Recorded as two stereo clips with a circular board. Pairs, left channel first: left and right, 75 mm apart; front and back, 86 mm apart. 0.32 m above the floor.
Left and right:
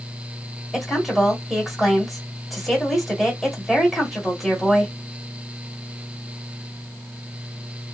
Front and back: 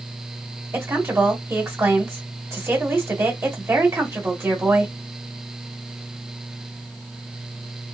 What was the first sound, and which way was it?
A woman speaking, straight behind.